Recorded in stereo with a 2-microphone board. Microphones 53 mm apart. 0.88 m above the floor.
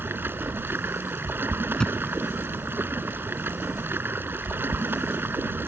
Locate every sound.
0.0 s running water: 40° right (ahead or behind)
1.8 s a thud: 15° left (ahead or behind)